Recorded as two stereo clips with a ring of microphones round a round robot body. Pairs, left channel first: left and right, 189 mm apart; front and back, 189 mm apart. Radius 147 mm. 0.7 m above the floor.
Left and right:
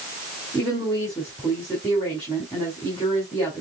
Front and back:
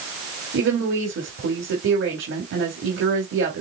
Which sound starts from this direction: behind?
A woman speaking, at 0.5 s.